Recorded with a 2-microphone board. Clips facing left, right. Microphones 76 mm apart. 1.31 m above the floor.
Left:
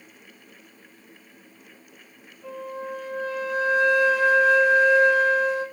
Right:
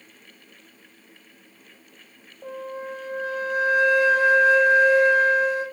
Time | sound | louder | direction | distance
2.4 | a flute | even | 70° right (ahead or behind) | 4.5 m